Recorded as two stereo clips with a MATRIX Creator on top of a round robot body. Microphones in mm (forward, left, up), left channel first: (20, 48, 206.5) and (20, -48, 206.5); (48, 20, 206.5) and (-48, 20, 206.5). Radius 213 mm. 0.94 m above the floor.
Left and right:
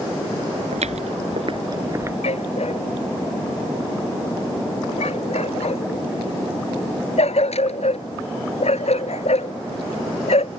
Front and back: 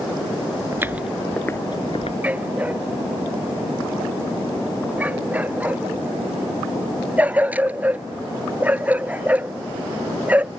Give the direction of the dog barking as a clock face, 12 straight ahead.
8 o'clock.